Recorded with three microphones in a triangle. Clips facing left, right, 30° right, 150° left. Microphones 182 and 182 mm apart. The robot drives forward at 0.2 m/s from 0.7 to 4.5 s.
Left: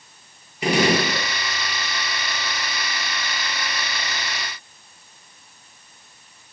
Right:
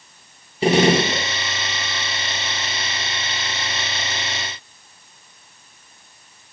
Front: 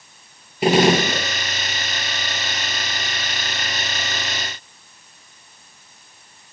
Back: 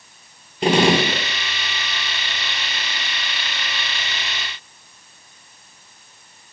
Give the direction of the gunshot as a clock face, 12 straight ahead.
4 o'clock.